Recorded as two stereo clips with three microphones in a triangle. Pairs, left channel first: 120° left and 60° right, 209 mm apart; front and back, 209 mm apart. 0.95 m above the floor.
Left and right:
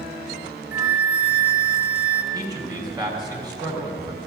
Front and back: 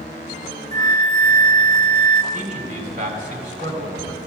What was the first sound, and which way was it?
A flute, 140° right.